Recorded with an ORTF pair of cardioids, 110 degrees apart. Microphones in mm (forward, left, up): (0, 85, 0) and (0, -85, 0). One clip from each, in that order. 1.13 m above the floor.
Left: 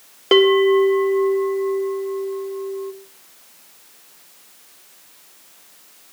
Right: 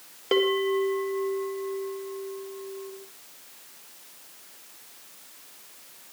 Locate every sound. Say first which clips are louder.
0.3 s a bell: left 10 dB; 40° left, 1.4 m